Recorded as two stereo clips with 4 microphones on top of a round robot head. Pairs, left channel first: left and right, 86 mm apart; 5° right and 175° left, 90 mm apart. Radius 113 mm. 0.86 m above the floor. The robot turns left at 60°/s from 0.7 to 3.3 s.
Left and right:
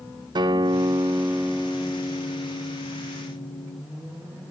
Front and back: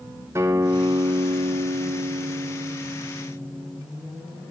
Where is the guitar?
120° right, 0.7 m; by 3.8 s 85° left, 0.7 m.